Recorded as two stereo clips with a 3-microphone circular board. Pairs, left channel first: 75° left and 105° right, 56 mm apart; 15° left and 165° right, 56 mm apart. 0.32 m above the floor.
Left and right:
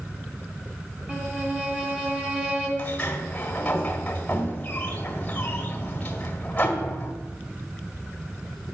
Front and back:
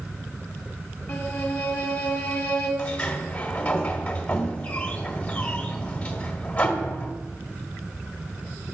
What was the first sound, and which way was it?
A violin, 45° right.